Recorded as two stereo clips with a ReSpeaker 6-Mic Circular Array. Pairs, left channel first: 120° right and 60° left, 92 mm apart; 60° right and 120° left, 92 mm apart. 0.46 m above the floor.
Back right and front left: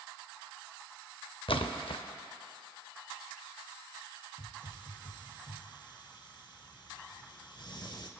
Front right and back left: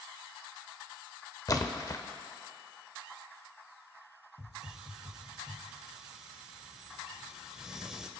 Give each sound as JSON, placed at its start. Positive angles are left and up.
{"t": 1.5, "sound": "a splash", "azimuth_deg": -105, "distance_m": 0.6}
{"t": 4.4, "sound": "a hiss", "azimuth_deg": -155, "distance_m": 0.7}